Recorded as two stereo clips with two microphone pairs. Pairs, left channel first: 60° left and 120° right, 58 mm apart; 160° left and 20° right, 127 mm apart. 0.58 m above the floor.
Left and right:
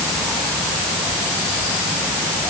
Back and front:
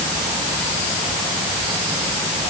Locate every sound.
Only background noise.